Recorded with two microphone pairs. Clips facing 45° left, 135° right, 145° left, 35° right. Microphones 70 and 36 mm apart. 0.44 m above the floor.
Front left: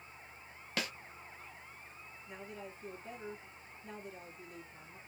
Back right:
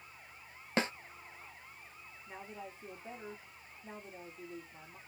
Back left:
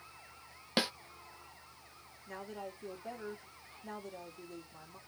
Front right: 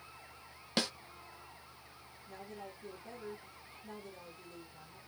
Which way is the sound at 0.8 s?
155° right.